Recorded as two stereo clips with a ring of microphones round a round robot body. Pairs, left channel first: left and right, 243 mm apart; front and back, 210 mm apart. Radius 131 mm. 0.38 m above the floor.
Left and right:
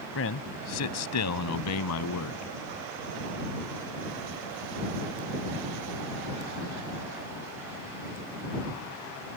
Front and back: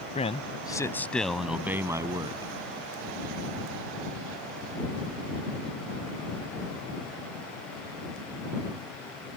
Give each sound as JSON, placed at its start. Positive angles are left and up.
{"t": 0.1, "sound": "a man speaking", "azimuth_deg": 60}